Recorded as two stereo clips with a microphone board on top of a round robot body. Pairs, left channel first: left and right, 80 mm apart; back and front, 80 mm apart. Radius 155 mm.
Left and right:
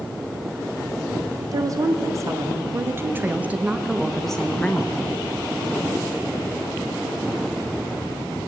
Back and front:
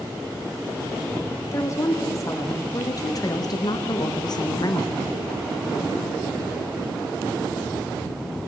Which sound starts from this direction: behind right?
A woman speaking, at 1.5 s.